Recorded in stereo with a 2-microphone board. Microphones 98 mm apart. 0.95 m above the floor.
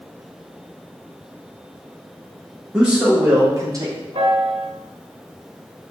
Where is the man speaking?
10° right (ahead or behind), 1.3 m; by 4.0 s 45° right (ahead or behind), 0.9 m.